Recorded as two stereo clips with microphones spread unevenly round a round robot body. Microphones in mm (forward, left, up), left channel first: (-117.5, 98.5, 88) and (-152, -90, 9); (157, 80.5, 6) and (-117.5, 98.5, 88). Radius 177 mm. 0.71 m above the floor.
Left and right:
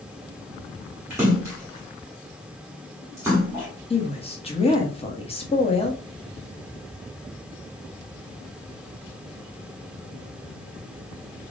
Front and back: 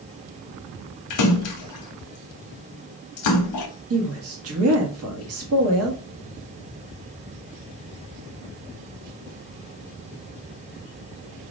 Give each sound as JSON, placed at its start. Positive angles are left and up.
{"t": 1.1, "sound": "a splash", "azimuth_deg": -20, "distance_m": 0.7}
{"t": 3.9, "sound": "a woman speaking", "azimuth_deg": 160, "distance_m": 1.1}